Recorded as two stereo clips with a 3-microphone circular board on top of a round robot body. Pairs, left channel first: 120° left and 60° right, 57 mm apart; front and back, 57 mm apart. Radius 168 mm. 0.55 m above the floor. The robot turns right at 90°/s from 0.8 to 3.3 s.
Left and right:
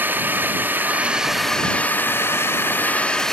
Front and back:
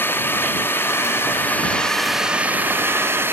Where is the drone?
25° right; by 3.3 s 160° right.